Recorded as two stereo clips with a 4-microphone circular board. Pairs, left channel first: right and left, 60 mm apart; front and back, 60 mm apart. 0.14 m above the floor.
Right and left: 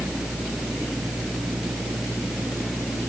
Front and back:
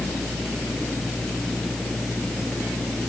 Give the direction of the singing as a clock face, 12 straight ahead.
No singing in this recording.